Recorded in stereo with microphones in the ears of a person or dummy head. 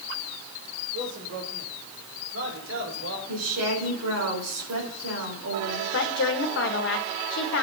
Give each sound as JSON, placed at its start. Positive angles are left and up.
{"t": 0.9, "sound": "a man speaking", "side_deg": -70, "distance_m": 3.5}
{"t": 3.3, "sound": "a woman speaking", "side_deg": -90, "distance_m": 4.0}
{"t": 5.9, "sound": "a woman speaking", "side_deg": 60, "distance_m": 1.6}